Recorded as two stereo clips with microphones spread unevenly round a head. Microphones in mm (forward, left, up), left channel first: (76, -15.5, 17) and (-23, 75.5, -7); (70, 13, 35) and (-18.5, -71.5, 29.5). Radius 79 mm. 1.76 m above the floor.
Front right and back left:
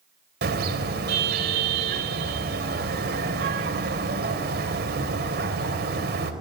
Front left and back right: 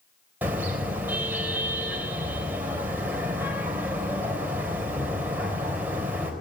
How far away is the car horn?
About 3.5 m.